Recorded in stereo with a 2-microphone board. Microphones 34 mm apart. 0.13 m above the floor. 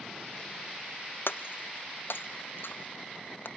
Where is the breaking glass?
75° left (ahead or behind).